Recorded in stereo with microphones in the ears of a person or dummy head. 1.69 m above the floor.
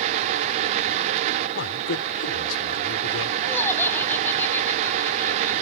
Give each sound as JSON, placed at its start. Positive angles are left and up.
{"t": 1.6, "sound": "a man speaking", "side_deg": 70}
{"t": 3.4, "sound": "laughter", "side_deg": 10}